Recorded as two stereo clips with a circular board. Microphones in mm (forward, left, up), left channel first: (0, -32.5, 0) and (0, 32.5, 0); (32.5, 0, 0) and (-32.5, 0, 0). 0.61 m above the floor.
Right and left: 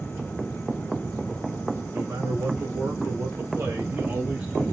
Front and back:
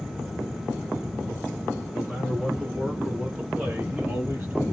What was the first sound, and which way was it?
A man speaking, 80° left.